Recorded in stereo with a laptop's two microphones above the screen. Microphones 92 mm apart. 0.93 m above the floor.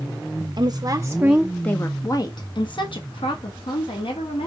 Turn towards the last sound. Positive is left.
turn(degrees=75)  # may be behind; listen again after turning